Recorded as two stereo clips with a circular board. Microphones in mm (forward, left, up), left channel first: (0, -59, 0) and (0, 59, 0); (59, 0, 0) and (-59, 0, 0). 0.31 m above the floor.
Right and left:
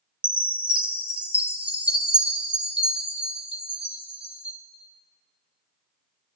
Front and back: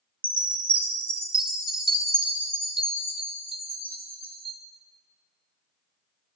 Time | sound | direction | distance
0.2 | a chime | 165° left | 1.0 m